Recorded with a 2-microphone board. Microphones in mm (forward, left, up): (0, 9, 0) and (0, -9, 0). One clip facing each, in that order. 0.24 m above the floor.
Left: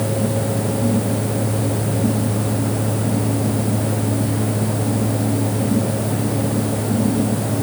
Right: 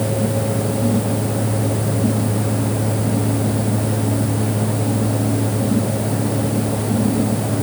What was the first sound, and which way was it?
Only background noise.